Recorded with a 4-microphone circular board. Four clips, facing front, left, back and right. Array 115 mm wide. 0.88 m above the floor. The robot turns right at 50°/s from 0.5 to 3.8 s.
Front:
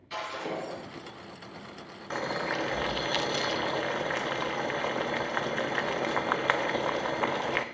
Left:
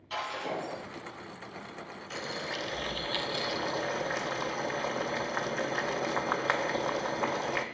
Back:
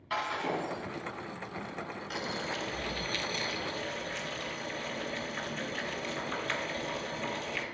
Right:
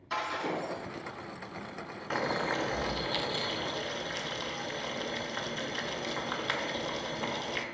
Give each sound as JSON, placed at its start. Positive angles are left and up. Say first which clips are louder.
{"t": 0.1, "sound": "breaking glass", "louder": "right 2 dB, back 2 dB", "azimuth_deg": -165, "distance_m": 5.0}
{"t": 2.1, "sound": "boiling", "louder": "right 7 dB, front 7 dB", "azimuth_deg": -60, "distance_m": 0.5}